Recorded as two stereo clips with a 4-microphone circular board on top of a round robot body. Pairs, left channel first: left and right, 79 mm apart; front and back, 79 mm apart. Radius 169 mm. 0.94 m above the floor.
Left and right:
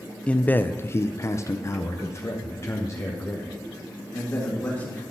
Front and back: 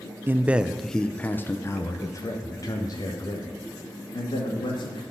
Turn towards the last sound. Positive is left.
turn(degrees=30)